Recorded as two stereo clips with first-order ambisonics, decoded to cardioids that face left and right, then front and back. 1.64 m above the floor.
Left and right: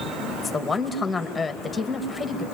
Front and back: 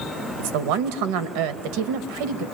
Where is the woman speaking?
170° left, 2 m.